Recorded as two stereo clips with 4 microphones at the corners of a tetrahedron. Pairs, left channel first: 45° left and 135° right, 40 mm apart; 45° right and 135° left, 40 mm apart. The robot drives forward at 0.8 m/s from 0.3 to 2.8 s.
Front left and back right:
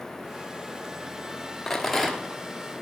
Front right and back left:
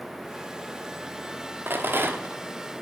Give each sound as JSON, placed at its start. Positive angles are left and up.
{"t": 1.7, "sound": "a rattle", "azimuth_deg": 125, "distance_m": 1.0}